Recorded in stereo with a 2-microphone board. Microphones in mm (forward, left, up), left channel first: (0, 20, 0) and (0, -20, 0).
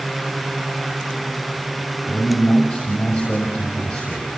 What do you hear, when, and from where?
2.1 s a man speaking: 50° left (ahead or behind), 5.5 m